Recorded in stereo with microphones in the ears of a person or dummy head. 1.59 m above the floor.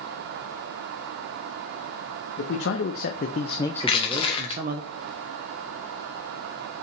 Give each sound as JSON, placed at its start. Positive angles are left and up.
{"t": 2.4, "sound": "a man speaking", "side_deg": 70, "distance_m": 1.0}
{"t": 3.8, "sound": "crushing", "side_deg": 30, "distance_m": 1.4}